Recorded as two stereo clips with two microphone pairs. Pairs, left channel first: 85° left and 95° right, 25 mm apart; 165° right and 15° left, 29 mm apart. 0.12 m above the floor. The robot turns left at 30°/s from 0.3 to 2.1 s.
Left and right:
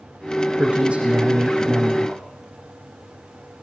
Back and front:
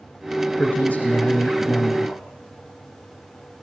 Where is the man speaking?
120° right, 6 m; by 2.2 s 165° right, 6 m.